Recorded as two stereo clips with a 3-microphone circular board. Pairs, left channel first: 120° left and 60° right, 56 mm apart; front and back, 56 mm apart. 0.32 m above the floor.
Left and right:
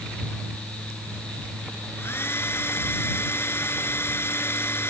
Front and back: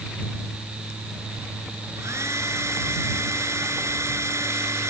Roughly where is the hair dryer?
Behind.